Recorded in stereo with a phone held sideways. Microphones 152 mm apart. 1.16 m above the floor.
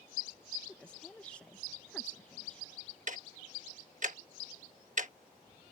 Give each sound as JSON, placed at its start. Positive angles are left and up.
{"t": 0.7, "sound": "a woman speaking", "side_deg": 10}
{"t": 3.1, "sound": "ticking", "side_deg": -55}